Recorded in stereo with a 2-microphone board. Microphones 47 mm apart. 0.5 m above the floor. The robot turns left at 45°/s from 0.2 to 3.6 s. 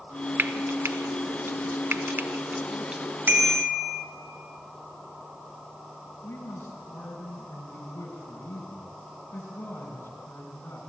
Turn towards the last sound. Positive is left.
turn(degrees=55)  # may be behind; listen again after turning